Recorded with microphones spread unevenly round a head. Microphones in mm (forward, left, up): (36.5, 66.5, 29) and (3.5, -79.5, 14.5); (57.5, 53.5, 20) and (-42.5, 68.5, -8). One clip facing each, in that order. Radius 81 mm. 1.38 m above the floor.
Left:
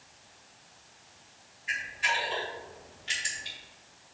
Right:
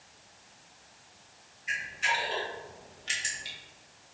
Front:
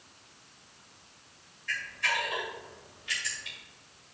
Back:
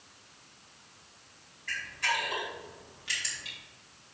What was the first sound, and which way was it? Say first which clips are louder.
A camera shutter: even, even; 140° right.